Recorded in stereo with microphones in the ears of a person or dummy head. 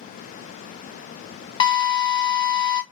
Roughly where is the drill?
Left.